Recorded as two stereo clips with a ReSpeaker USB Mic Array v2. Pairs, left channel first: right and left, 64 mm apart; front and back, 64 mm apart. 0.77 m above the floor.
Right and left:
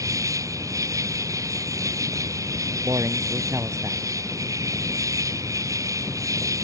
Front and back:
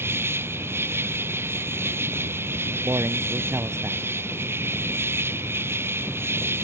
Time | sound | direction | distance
0.0 | an insect | 125° left | ?
2.8 | a man speaking | 130° left | ?